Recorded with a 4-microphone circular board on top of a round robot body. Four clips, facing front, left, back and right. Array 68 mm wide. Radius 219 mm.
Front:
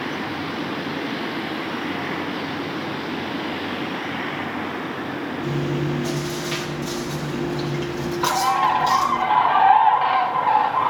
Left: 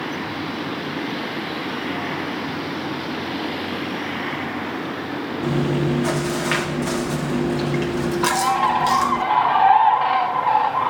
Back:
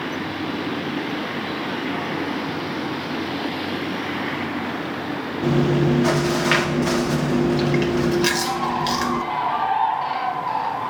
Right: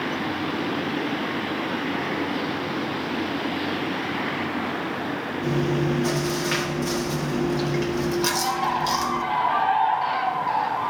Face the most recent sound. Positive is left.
turn(degrees=45)